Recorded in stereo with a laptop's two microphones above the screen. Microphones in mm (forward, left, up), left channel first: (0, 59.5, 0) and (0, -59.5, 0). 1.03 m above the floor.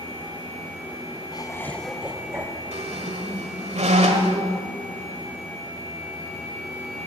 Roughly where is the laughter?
Left.